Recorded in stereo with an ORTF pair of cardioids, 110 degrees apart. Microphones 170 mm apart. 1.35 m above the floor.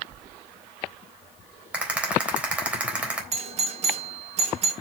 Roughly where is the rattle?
Ahead.